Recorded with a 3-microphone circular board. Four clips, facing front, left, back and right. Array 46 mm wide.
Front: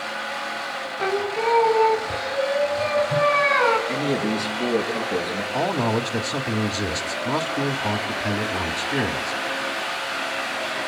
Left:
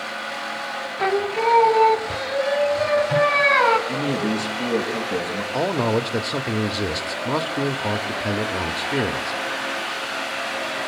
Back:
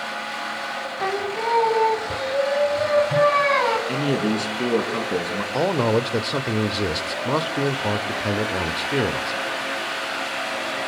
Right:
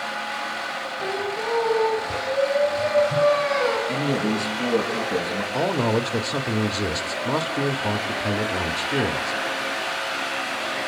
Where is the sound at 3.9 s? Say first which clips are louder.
Even, back 1 dB; 175° left, 5 m.